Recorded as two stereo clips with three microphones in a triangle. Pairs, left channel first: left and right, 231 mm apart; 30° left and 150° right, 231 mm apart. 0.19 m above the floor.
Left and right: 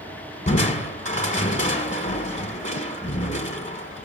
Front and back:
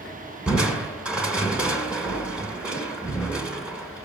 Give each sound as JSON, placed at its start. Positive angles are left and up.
{"t": 0.5, "sound": "crushing", "azimuth_deg": 125, "distance_m": 1.4}